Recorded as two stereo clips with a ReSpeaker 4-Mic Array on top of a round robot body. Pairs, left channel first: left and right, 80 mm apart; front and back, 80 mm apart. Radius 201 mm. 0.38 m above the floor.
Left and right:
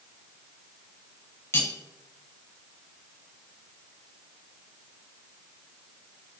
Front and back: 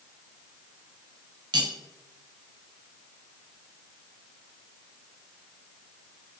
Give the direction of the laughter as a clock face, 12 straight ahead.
No laughter in this recording.